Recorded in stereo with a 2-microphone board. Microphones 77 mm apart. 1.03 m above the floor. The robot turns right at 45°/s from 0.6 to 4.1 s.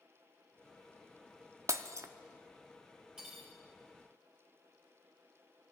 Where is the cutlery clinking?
10° right (ahead or behind), 3 m; by 3.5 s 5° left (ahead or behind), 3 m.